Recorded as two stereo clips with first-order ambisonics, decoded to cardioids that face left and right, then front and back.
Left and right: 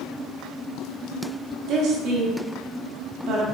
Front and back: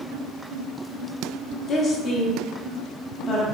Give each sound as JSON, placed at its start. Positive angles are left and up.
{"t": 1.7, "sound": "a woman speaking", "azimuth_deg": -55, "distance_m": 0.8}